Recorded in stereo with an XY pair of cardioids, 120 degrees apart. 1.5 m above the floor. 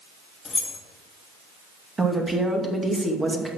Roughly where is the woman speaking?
Ahead.